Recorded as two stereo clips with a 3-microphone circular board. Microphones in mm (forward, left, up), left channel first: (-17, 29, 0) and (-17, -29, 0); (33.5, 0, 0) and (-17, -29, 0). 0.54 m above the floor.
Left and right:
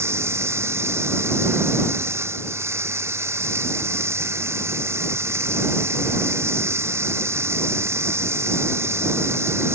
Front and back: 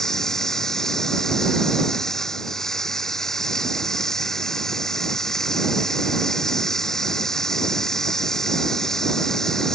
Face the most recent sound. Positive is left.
turn(degrees=-50)